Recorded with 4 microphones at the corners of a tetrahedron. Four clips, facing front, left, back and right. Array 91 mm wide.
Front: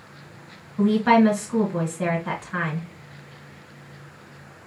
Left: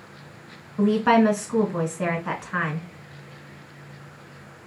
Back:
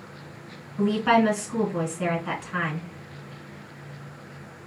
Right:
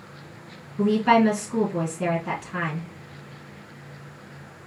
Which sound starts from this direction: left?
A woman speaking, at 0.8 s.